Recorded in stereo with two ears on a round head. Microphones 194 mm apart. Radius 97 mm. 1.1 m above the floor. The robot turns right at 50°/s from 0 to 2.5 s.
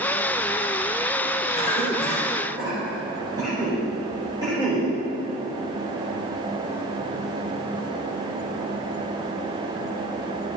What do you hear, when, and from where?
1.6 s a cough: 25° left (ahead or behind), 4.5 m; by 4.9 s 20° right (ahead or behind), 4.5 m